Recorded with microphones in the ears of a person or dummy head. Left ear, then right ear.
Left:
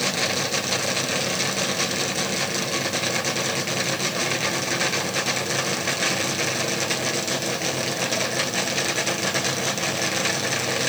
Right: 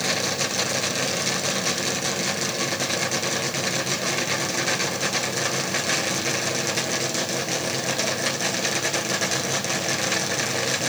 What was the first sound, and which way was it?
Only background noise.